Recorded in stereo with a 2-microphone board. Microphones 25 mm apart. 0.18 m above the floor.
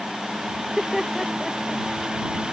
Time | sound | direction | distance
0.6 | laughter | 20° right (ahead or behind) | ?